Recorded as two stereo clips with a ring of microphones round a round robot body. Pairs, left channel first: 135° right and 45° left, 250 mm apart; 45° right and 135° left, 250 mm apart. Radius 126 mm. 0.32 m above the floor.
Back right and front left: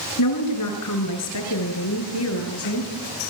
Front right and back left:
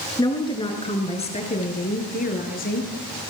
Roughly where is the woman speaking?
Behind right.